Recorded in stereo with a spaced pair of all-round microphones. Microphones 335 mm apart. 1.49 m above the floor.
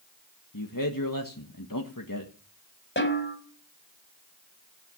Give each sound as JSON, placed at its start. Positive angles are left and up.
{"t": 0.5, "sound": "a man speaking", "side_deg": 75, "distance_m": 1.8}
{"t": 3.0, "sound": "a snare drum", "side_deg": 35, "distance_m": 4.0}